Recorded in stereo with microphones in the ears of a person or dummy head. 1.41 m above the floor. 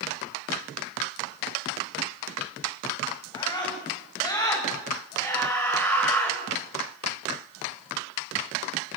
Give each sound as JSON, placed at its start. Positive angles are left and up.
{"t": 3.3, "sound": "a scream", "side_deg": 25, "distance_m": 9.5}